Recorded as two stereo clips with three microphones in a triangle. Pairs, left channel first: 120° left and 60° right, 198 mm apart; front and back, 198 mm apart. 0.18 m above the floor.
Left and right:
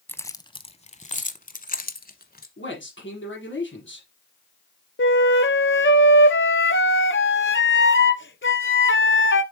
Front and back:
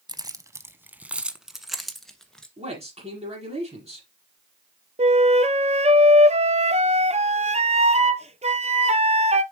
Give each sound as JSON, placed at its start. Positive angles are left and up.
{"t": 0.1, "sound": "keys jangling", "azimuth_deg": 180, "distance_m": 0.7}
{"t": 2.6, "sound": "a man speaking", "azimuth_deg": 125, "distance_m": 5.0}
{"t": 5.0, "sound": "a flute", "azimuth_deg": 130, "distance_m": 0.6}